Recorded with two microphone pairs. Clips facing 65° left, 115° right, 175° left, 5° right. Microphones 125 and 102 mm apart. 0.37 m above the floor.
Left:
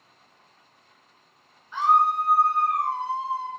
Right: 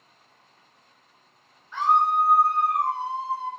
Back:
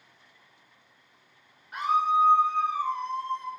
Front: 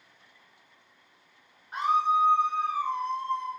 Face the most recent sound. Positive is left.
turn(degrees=-100)